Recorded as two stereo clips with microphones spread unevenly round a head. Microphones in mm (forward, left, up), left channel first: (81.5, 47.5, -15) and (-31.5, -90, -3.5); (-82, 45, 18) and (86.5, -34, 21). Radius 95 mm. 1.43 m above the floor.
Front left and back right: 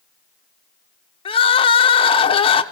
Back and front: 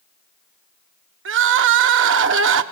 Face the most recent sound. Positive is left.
turn(degrees=-10)